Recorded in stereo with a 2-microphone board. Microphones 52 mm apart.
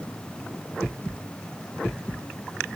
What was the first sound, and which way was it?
Only background noise.